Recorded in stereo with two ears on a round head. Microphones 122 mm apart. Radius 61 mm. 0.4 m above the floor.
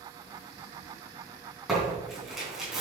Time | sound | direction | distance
1.7 | tearing paper | 5° right (ahead or behind) | 3.5 m